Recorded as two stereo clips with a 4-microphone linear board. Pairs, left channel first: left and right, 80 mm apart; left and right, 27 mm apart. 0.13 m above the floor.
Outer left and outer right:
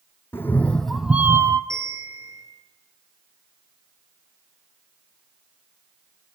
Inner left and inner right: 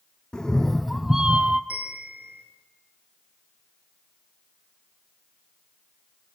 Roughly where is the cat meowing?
Left.